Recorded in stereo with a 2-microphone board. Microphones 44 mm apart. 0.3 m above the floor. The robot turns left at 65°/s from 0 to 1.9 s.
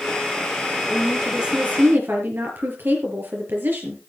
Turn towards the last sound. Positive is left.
turn(degrees=-55)